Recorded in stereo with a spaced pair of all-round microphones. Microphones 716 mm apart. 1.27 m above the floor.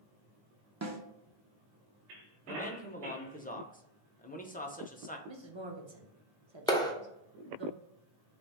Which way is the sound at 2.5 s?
15° left (ahead or behind).